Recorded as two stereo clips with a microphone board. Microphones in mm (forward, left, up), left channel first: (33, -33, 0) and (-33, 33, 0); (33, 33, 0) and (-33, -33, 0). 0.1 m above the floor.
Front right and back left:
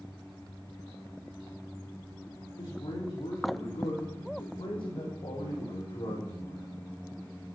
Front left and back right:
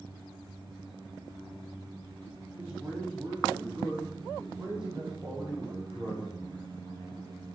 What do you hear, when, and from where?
2.6 s a man speaking: 60° right, 6.5 m; by 6.7 s 45° right, 4 m